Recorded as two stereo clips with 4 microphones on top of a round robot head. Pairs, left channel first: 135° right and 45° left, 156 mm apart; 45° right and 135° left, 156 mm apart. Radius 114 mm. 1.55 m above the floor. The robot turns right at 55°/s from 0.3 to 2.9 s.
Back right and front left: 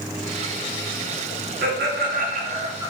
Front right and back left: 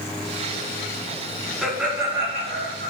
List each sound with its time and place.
1.6 s laughter: 45° left, 4.5 m; by 2.9 s 115° left, 4.5 m